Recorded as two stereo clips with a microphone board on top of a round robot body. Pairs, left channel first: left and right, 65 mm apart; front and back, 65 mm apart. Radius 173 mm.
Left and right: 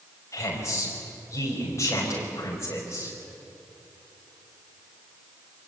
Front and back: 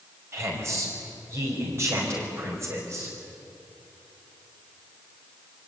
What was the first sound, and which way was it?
A woman speaking, 135° left.